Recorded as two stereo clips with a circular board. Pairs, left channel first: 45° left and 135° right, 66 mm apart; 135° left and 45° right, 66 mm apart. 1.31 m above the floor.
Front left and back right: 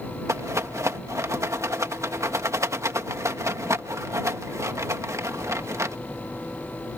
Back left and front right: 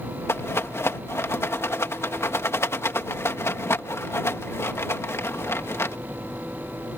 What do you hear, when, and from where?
0.3 s a rattle: 175° right